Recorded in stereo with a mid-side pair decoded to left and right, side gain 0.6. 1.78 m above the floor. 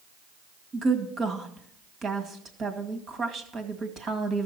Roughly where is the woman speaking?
Ahead right.